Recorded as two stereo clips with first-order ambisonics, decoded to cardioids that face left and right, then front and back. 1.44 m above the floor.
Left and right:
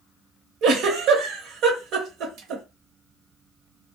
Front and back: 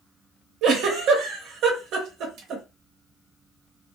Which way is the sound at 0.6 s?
135° right.